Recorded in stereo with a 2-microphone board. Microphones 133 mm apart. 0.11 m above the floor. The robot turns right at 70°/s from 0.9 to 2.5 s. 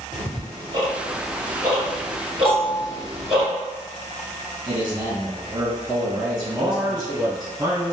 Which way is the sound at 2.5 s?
45° left (ahead or behind).